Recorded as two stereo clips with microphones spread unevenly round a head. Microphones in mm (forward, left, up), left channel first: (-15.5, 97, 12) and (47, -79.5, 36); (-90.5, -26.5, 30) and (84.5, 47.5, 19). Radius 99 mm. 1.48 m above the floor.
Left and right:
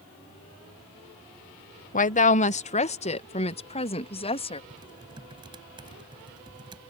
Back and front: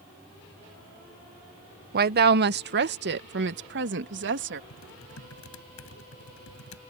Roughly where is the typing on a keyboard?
Behind right.